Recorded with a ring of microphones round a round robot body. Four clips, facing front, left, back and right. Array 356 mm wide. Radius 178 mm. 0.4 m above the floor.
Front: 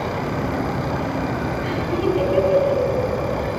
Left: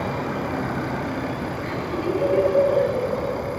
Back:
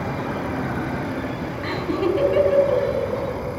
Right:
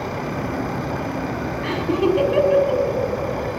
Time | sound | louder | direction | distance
1.6 | laughter | right 8 dB, back 1 dB | 115° right | 3.5 m